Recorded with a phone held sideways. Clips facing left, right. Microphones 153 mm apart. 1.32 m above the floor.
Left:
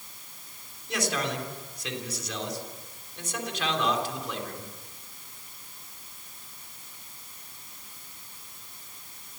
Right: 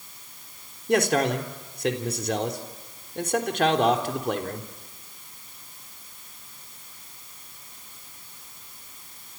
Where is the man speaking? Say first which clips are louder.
Right 9 dB; 55° right (ahead or behind), 3.5 m.